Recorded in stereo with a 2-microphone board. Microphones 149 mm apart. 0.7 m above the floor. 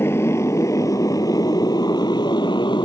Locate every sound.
0.0 s a motorcycle: 15° left (ahead or behind); by 2.9 s 35° left (ahead or behind)